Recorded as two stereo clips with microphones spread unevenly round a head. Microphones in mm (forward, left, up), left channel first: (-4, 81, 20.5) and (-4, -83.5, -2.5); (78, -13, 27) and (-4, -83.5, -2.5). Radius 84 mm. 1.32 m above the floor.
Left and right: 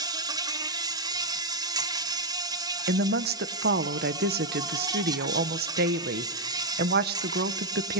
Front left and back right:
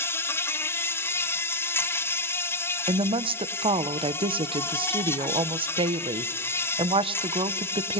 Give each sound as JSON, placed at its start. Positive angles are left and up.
{"t": 0.0, "sound": "an insect", "azimuth_deg": -35, "distance_m": 1.7}
{"t": 2.9, "sound": "a woman speaking", "azimuth_deg": -115, "distance_m": 1.2}